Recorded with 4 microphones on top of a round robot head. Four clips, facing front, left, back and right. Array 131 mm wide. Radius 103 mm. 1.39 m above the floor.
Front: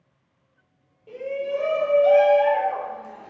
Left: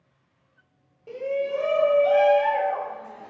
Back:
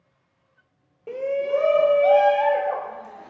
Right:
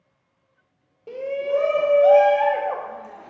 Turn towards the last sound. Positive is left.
turn(degrees=-115)